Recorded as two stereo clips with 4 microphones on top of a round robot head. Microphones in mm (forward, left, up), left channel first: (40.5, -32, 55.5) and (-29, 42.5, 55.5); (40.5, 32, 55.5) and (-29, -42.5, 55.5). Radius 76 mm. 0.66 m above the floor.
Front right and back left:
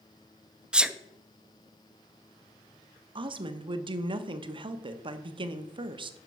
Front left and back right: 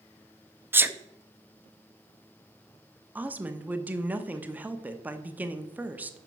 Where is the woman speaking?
155° left, 0.9 m.